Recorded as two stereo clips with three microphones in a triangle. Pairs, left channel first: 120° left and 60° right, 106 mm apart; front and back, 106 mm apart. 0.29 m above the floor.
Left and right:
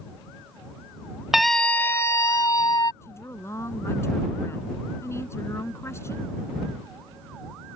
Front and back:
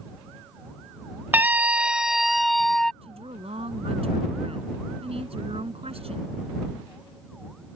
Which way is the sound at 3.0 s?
175° right.